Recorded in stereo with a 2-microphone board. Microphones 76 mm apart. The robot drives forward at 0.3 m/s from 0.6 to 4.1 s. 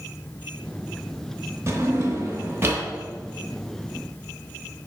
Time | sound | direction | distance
1.7 | a drawer | 35° right (ahead or behind) | 0.7 m